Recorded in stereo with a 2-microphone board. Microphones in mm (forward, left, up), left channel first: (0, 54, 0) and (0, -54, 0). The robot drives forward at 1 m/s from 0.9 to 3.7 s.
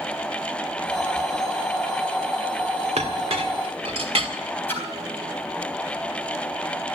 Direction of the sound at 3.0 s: 75° right (ahead or behind).